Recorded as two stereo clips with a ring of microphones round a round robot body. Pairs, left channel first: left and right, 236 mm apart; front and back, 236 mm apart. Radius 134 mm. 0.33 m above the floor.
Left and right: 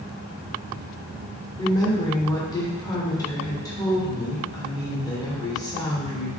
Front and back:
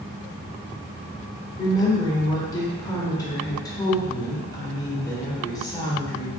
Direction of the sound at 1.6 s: 45° left.